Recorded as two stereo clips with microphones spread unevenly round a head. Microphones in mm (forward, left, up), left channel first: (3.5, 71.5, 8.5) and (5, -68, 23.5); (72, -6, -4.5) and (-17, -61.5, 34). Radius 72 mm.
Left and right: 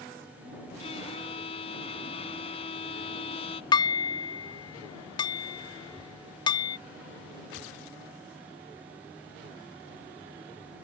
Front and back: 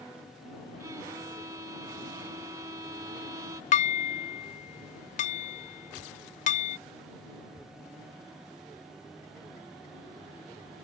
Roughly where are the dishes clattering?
Ahead left.